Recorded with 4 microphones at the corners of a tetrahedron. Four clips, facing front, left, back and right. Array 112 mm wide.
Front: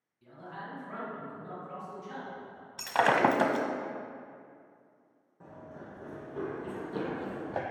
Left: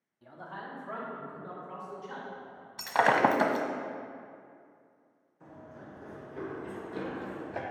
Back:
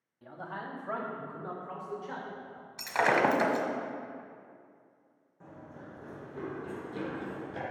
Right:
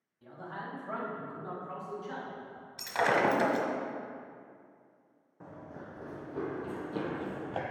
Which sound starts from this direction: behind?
A man speaking, at 0.2 s.